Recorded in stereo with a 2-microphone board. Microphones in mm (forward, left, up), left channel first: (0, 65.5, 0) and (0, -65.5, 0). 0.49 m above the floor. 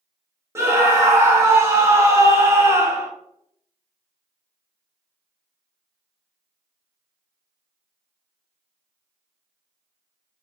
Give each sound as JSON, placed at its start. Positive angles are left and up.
{"t": 0.6, "sound": "a scream", "side_deg": -20, "distance_m": 0.7}